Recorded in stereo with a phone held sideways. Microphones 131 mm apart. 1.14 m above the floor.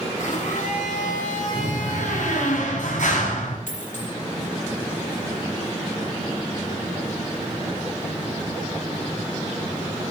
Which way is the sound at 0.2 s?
75° left (ahead or behind).